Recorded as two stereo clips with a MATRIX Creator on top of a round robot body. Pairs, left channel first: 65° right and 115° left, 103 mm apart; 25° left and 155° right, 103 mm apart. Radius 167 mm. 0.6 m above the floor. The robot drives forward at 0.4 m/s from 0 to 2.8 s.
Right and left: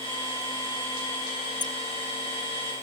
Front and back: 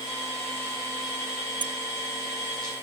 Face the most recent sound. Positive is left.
turn(degrees=-120)